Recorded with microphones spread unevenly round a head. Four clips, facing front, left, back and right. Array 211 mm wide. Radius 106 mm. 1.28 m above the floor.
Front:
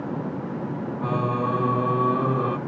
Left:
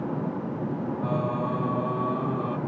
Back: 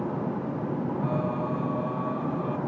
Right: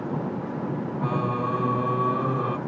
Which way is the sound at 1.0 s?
20° right.